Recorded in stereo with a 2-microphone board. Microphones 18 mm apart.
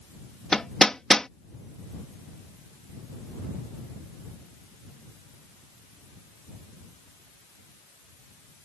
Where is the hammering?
35° left (ahead or behind).